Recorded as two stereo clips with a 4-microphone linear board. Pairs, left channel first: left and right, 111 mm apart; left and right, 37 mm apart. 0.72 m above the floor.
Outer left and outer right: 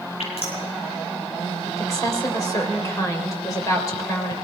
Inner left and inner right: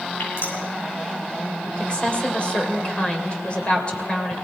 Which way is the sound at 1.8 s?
30° left (ahead or behind).